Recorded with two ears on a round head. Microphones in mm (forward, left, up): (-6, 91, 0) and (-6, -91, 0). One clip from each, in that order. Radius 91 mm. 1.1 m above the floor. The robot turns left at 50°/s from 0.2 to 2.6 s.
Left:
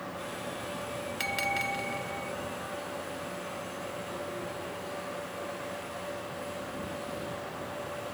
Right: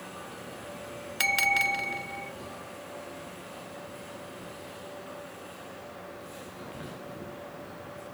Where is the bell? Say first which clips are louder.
Right 7 dB; 105° right; by 2.3 s 165° right.